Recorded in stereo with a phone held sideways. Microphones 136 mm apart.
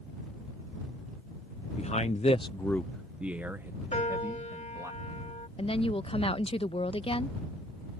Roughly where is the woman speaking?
Left.